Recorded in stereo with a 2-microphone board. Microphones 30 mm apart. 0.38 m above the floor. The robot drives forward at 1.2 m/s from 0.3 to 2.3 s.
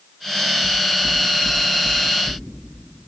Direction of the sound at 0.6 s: Centre (ahead or behind).